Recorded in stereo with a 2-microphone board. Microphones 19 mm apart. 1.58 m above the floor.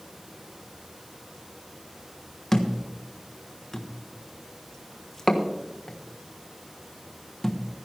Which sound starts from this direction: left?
A thud, at 2.5 s.